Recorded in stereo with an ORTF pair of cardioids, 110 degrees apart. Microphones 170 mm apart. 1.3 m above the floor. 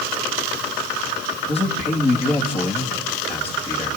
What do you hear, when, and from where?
1.5 s a man speaking: 35° left, 2.5 m